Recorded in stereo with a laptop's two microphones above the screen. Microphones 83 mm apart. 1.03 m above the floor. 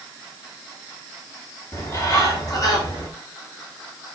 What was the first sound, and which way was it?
A bird, 45° left (ahead or behind).